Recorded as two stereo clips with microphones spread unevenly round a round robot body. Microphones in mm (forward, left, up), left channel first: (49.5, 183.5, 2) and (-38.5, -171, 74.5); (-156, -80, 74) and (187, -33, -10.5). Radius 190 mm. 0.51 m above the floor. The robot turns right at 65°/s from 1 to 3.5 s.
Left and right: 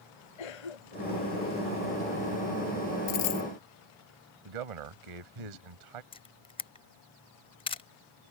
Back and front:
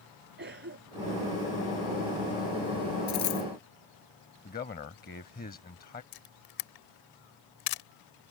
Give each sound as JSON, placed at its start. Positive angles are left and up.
{"t": 0.4, "sound": "a cough", "azimuth_deg": 75}
{"t": 3.1, "sound": "a dropped coin", "azimuth_deg": 115}
{"t": 4.5, "sound": "a man speaking", "azimuth_deg": -105}
{"t": 6.1, "sound": "a camera shutter", "azimuth_deg": 150}